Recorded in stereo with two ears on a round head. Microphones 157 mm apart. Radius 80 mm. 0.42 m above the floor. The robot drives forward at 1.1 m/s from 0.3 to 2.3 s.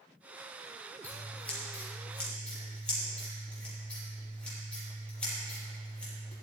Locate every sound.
1.0 s scissors: 10° left (ahead or behind), 3.5 m; by 6.3 s 5° left (ahead or behind), 5 m